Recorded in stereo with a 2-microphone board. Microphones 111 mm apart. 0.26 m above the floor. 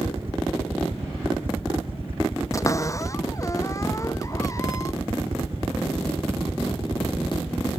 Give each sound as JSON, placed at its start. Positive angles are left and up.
{"t": 0.0, "sound": "a helicopter", "side_deg": -55}
{"t": 2.5, "sound": "a cupboard door", "side_deg": 30}